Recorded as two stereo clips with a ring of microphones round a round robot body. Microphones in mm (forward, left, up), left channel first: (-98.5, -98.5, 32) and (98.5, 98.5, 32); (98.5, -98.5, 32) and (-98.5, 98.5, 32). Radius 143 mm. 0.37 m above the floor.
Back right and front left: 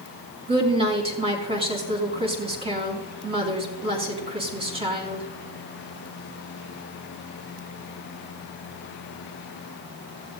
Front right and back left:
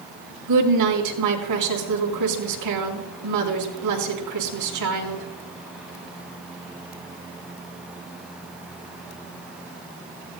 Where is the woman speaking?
115° left, 4 m.